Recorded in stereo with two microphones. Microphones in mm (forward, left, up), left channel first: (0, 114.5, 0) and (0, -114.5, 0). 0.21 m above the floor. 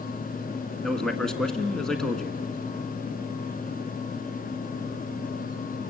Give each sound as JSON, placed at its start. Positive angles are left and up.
{"t": 0.8, "sound": "a man speaking", "side_deg": 5, "distance_m": 1.8}